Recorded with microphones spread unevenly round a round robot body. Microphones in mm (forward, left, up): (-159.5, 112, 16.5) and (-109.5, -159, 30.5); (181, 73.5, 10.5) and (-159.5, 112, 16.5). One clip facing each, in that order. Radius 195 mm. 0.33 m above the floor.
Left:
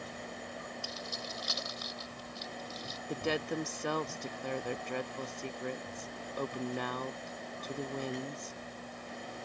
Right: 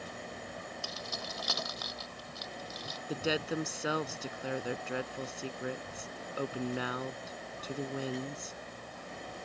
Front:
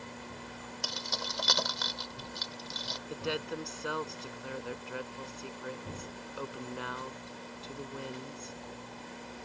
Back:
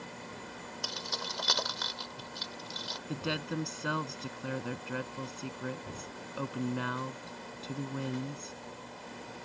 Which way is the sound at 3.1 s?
165° right.